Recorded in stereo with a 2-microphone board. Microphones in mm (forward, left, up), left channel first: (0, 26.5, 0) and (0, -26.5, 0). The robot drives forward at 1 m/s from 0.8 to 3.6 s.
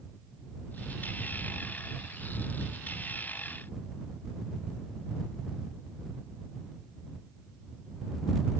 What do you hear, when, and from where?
Only background noise.